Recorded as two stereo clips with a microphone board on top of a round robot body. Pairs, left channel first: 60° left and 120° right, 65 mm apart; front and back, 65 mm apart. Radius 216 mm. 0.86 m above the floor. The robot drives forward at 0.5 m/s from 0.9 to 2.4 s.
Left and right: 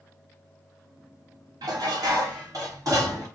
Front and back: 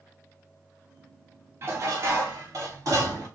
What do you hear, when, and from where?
1.6 s dishes clattering: 125° right, 0.7 m; by 3.3 s 145° right, 1.0 m